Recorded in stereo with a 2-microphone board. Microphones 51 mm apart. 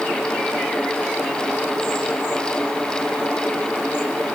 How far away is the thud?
No thud in this recording.